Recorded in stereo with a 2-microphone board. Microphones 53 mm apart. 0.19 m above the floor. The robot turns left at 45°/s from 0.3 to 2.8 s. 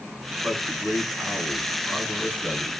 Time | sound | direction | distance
0.4 | a man speaking | 100° right | 1.6 m